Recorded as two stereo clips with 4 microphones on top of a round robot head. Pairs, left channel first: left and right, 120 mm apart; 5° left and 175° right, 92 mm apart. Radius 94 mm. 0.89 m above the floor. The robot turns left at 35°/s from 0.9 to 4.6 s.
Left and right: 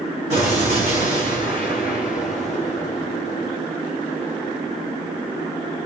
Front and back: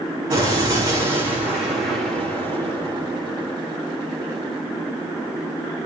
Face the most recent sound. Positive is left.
turn(degrees=100)